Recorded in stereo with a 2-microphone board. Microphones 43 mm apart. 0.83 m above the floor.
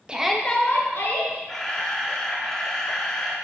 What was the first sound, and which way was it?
A shout, 20° right (ahead or behind).